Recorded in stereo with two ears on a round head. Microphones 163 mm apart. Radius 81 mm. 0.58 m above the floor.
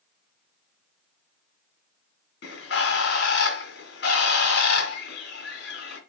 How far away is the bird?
About 2.5 m.